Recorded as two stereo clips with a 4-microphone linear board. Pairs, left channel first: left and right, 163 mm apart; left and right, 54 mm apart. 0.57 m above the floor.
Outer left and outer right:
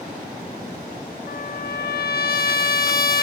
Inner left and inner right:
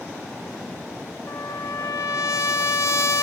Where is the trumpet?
65° left (ahead or behind), 0.7 m.